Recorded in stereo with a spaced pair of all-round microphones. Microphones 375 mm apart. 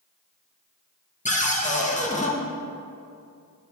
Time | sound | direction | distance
1.2 | a cupboard door | 20° left (ahead or behind) | 0.9 m